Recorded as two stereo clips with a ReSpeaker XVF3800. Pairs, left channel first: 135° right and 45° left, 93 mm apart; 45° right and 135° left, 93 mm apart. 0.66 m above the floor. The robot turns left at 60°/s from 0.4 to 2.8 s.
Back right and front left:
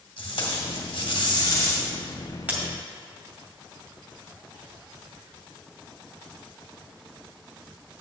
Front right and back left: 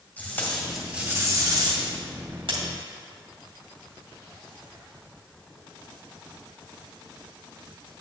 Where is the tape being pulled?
115° right, 2 m; by 2.6 s 110° left, 2 m.